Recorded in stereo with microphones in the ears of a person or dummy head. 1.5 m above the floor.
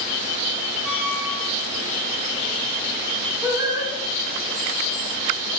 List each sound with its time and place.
0.8 s a squeak: 10° right (ahead or behind), 2.5 m
3.4 s singing: 25° right (ahead or behind), 1.4 m